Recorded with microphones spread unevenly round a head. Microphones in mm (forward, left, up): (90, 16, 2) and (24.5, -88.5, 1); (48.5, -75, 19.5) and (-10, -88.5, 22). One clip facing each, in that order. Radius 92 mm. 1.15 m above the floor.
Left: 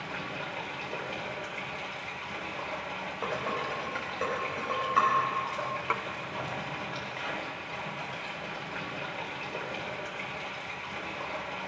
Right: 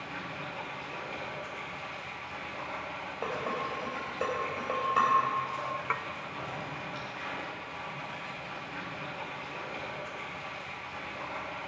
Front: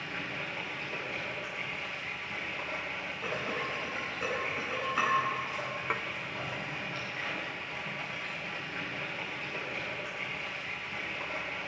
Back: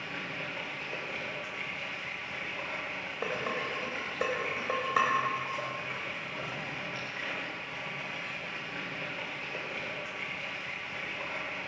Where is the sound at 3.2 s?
165° left, 3.5 m.